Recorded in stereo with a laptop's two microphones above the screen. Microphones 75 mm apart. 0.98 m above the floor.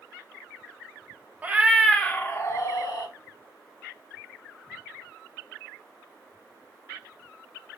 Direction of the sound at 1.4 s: 20° right (ahead or behind).